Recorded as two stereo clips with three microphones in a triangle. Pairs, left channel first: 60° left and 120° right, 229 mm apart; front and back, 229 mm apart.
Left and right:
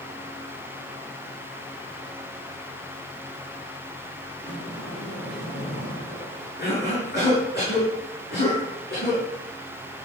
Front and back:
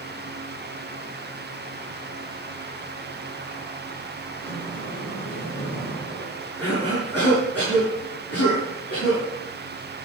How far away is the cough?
About 7.5 m.